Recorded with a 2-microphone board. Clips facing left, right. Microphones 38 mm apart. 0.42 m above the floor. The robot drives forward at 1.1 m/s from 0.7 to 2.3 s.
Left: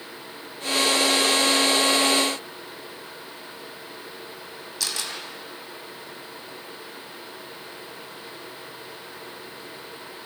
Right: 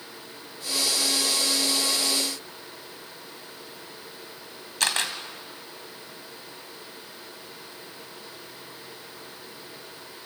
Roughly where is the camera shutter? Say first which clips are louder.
Right 5 dB; right.